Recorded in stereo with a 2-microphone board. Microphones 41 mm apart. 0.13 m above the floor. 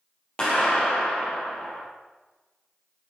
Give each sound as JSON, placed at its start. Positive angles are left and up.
{"t": 0.4, "sound": "a clap", "side_deg": 25, "distance_m": 3.5}